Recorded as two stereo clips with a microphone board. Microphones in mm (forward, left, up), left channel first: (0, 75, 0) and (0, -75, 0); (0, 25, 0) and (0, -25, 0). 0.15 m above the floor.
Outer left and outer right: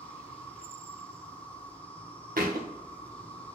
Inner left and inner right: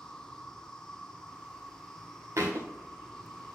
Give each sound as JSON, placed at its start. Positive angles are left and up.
{"t": 0.0, "sound": "an insect", "side_deg": 10, "distance_m": 1.1}
{"t": 2.4, "sound": "a thud", "side_deg": -75, "distance_m": 1.5}